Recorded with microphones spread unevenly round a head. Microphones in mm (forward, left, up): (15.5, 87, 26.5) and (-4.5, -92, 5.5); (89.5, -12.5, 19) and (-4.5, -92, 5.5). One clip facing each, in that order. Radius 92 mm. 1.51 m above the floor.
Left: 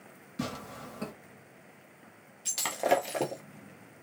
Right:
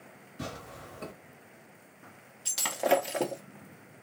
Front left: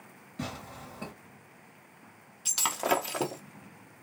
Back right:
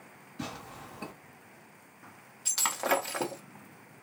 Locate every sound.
0.4 s tearing paper: 95° left, 2 m
2.5 s breaking glass: 5° left, 0.6 m